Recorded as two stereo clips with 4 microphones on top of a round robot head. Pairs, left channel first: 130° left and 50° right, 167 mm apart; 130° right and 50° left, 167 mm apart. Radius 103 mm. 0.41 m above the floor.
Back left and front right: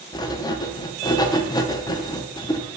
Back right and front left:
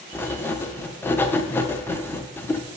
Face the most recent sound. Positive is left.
turn(degrees=165)